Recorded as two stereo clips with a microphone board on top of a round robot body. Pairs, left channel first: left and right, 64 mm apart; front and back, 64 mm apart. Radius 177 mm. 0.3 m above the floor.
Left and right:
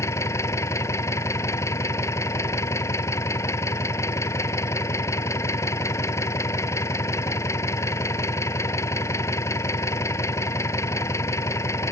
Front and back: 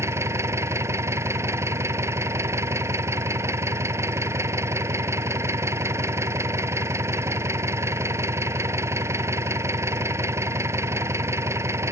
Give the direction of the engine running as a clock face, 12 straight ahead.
8 o'clock.